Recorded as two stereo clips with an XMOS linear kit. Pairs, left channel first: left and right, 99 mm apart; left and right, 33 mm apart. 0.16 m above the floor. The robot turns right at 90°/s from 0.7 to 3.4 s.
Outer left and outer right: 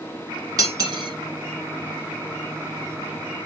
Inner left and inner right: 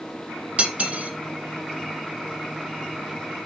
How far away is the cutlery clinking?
About 1.1 m.